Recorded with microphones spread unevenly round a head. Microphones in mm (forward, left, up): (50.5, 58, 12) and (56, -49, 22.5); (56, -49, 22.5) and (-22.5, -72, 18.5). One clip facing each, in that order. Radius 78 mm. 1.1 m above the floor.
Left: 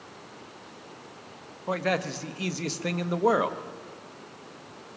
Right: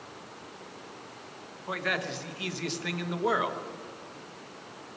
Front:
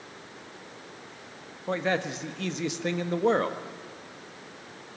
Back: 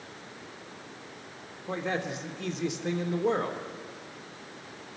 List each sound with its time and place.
1.7 s a man speaking: 45° left, 1.2 m